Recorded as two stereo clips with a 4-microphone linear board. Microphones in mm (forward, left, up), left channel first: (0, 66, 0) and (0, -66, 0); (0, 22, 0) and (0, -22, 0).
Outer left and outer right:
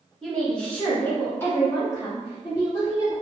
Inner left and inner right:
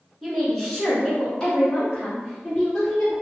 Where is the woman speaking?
Centre (ahead or behind), 1.6 m; by 3.1 s 25° left (ahead or behind), 2.0 m.